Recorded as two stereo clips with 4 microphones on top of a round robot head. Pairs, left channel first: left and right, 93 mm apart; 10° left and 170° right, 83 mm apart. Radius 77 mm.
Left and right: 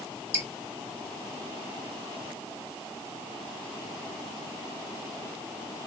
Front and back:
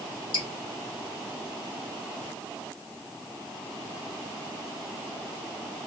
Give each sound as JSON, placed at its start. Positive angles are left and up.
{"t": 0.3, "sound": "dripping", "azimuth_deg": -20, "distance_m": 1.4}